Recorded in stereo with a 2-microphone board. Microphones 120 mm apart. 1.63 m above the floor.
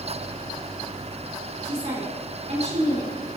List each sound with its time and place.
1.6 s a woman speaking: 85° right, 4.5 m